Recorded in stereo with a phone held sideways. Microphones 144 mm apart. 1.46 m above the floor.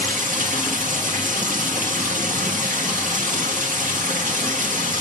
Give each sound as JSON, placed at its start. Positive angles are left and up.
{"t": 0.0, "sound": "running water", "side_deg": -65, "distance_m": 1.6}